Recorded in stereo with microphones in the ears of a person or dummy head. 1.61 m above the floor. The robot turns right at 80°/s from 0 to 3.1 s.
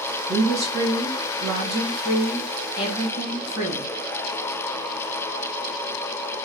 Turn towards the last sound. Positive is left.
turn(degrees=55)